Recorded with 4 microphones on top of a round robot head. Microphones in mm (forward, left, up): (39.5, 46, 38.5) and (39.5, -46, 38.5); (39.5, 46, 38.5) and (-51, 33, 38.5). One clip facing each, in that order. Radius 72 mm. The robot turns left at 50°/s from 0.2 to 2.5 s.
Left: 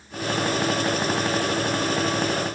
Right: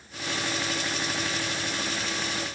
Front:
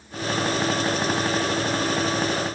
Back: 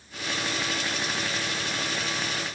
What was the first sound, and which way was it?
Only background noise.